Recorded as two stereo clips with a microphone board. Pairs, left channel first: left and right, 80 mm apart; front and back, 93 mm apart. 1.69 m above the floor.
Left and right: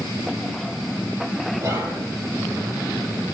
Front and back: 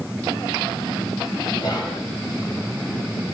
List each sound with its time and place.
1.6 s whispering: 40° right, 3.5 m